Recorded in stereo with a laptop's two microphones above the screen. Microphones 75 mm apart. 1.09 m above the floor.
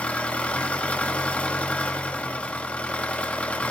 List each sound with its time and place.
0.0 s an engine running: 20° left (ahead or behind), 1.4 m